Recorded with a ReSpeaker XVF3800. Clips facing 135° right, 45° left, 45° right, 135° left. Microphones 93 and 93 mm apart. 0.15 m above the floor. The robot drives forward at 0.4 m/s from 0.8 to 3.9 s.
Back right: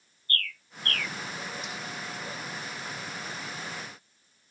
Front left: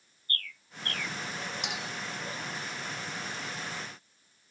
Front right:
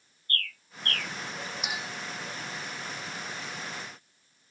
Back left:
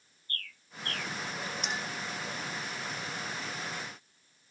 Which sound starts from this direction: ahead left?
A clink, at 1.6 s.